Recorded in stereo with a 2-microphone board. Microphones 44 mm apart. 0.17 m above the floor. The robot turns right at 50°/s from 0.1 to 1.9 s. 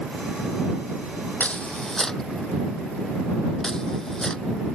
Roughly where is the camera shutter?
Left.